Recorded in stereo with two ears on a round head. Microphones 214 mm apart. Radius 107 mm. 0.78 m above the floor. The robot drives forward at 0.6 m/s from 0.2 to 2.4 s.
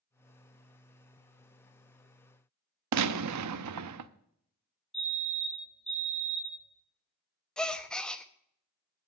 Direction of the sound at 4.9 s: Centre (ahead or behind).